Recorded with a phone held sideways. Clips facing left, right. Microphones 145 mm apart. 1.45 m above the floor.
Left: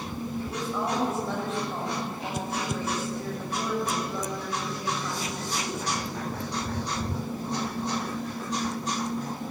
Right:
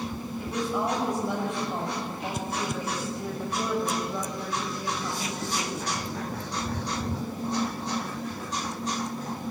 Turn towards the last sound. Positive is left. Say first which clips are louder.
# right 4 dB
turn(degrees=-15)  # may be behind; listen again after turning